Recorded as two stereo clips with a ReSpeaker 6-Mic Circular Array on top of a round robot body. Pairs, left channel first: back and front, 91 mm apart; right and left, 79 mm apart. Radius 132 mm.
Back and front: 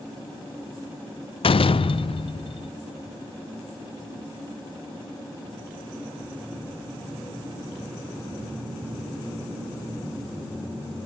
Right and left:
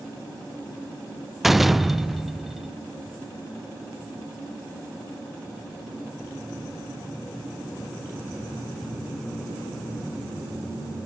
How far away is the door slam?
About 0.6 m.